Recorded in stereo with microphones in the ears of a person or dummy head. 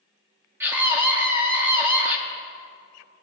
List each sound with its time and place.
0.6 s a scream: 10° right (ahead or behind), 0.6 m